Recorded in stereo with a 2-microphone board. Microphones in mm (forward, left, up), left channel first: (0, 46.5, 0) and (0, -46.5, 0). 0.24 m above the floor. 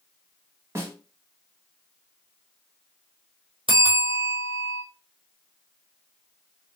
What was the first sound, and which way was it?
A snare drum, 30° right (ahead or behind).